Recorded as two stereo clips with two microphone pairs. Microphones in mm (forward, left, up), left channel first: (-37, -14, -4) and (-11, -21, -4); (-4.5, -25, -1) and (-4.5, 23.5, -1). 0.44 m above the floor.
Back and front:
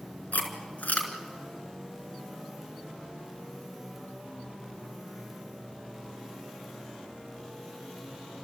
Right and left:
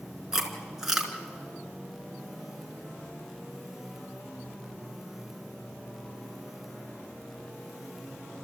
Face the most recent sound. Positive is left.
turn(degrees=170)